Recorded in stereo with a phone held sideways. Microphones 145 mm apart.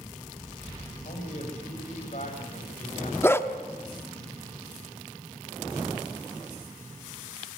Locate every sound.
1.1 s a man speaking: 60° left (ahead or behind), 6.5 m
3.2 s a dog barking: 15° left (ahead or behind), 1.1 m